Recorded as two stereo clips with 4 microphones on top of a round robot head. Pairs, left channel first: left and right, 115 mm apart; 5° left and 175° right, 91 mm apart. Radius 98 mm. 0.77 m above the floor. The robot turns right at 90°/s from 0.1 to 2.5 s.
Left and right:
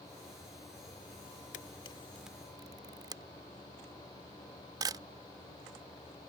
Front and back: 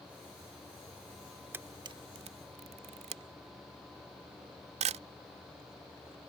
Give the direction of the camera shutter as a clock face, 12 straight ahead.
8 o'clock.